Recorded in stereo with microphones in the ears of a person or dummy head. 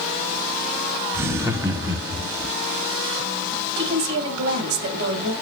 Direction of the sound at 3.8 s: 55° right (ahead or behind).